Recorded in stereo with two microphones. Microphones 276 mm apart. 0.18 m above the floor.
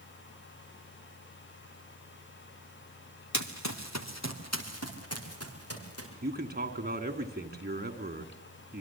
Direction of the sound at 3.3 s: 85° left.